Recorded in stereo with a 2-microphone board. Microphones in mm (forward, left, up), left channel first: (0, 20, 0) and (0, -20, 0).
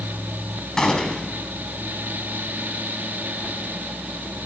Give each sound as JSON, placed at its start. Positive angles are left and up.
{"t": 0.8, "sound": "a gunshot", "side_deg": 15, "distance_m": 4.0}